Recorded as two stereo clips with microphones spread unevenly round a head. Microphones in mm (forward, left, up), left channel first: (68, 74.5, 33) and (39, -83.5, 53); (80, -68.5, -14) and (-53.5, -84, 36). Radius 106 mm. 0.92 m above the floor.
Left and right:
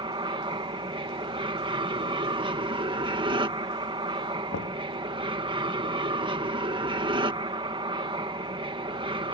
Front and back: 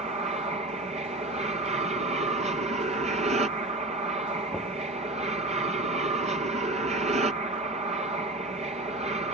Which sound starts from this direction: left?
Knocking, at 4.5 s.